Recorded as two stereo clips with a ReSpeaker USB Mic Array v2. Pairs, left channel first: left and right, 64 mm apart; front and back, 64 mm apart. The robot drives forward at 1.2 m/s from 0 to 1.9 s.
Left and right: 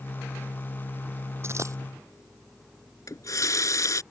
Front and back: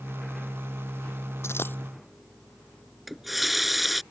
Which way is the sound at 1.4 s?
45° right.